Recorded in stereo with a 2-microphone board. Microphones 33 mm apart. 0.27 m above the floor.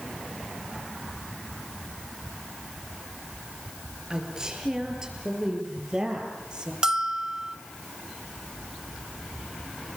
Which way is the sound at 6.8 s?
20° right (ahead or behind).